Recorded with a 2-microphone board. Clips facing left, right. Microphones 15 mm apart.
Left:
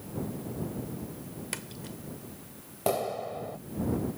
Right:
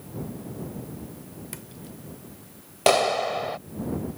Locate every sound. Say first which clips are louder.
1.5 s a splash: left 2 dB; 35° left (ahead or behind)
2.9 s a clap: right 9 dB; 80° right